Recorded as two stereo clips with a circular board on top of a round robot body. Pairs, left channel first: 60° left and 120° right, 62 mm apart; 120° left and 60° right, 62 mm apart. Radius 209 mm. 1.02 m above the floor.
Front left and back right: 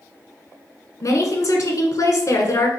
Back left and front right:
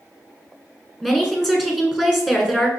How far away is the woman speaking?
About 1.5 m.